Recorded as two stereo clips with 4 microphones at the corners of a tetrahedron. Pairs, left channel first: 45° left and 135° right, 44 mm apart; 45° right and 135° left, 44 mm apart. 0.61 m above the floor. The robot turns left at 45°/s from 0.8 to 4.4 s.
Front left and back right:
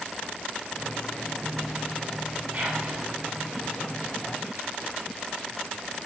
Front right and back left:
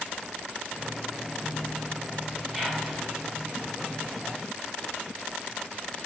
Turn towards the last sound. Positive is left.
turn(degrees=150)